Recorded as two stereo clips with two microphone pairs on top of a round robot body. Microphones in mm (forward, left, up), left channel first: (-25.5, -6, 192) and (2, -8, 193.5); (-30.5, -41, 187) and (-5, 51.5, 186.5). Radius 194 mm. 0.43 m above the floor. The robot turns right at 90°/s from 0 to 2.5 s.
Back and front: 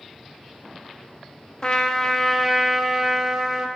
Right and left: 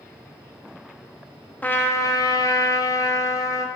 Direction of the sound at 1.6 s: 170° right.